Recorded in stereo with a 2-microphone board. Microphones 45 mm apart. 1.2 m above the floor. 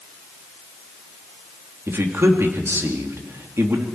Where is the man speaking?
80° right, 3 m.